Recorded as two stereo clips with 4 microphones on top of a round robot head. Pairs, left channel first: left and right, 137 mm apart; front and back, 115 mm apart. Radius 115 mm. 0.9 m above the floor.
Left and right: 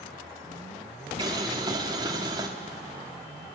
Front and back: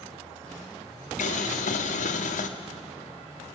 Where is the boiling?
25° right, 1.1 m.